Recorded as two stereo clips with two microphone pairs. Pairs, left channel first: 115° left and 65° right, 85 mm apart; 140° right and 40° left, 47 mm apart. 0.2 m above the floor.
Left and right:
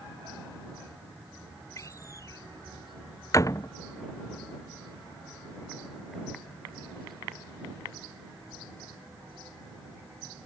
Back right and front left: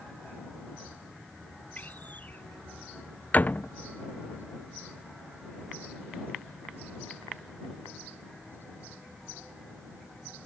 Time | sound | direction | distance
1.8 | a door slam | 165° left | ?